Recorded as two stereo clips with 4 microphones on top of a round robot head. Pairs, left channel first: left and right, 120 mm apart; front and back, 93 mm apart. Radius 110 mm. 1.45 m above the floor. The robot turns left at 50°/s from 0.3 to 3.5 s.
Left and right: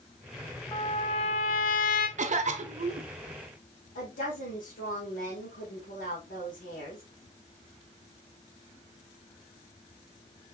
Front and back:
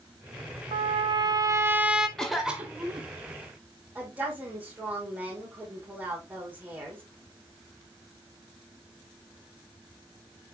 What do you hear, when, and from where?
0.7 s a trumpet: 160° left, 0.6 m; by 2.1 s 95° left, 0.6 m
2.2 s a cough: 80° right, 0.8 m; by 3.0 s 125° right, 0.8 m
4.0 s a woman speaking: 110° left, 1.9 m